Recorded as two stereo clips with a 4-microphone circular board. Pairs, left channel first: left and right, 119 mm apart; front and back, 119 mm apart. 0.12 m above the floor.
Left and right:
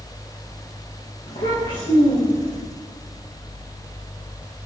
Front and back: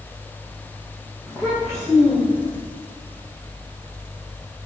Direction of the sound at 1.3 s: 95° left.